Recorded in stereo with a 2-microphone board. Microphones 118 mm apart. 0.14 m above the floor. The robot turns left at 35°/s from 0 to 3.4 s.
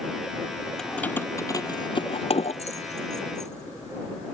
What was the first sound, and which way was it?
Keys jangling, 5° left (ahead or behind).